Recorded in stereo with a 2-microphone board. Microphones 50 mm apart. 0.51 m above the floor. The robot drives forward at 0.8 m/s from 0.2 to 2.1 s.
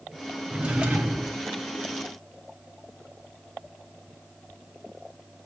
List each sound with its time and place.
0.5 s a drawer: 25° right (ahead or behind), 1.0 m; by 1.4 s 15° right (ahead or behind), 1.7 m